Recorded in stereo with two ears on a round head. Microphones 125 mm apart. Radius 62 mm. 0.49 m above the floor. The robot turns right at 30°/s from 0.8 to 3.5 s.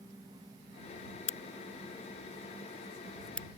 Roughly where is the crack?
Left.